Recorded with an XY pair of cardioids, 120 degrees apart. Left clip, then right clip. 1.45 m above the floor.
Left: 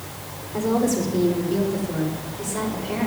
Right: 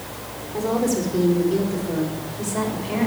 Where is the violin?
I don't hear a violin.